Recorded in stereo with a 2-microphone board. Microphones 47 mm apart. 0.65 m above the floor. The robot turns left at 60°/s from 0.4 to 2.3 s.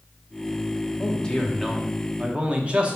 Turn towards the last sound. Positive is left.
turn(degrees=-40)